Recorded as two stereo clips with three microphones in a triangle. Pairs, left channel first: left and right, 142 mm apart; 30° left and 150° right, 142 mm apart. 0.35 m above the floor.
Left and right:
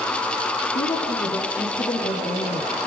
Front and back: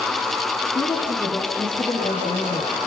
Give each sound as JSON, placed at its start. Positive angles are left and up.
{"t": 0.8, "sound": "a woman speaking", "azimuth_deg": 110, "distance_m": 7.0}